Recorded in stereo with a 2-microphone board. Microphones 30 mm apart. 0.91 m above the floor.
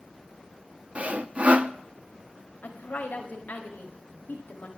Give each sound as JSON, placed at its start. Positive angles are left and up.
{"t": 0.9, "sound": "sawing", "side_deg": -45, "distance_m": 0.5}
{"t": 2.6, "sound": "a woman speaking", "side_deg": 65, "distance_m": 1.8}